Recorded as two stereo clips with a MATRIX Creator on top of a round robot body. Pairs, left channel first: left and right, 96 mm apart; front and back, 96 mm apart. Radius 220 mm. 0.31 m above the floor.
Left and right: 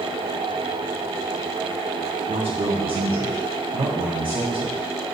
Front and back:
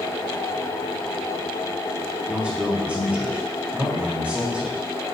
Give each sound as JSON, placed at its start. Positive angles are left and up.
{"t": 2.3, "sound": "a man speaking", "azimuth_deg": -105, "distance_m": 1.9}